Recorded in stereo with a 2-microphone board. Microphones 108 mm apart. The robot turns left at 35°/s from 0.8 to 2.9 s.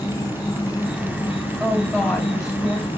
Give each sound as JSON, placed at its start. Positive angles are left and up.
{"t": 0.0, "sound": "an insect", "azimuth_deg": 145, "distance_m": 3.5}
{"t": 1.6, "sound": "a woman speaking", "azimuth_deg": 180, "distance_m": 4.5}